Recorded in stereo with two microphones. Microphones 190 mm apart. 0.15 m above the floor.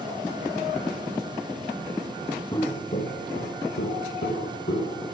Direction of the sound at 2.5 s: 20° left (ahead or behind).